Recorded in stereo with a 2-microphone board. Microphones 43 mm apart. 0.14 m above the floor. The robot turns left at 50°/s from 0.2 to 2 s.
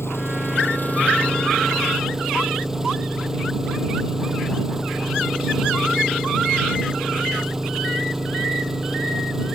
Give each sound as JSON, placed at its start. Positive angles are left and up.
{"t": 0.0, "sound": "an engine running", "azimuth_deg": 80}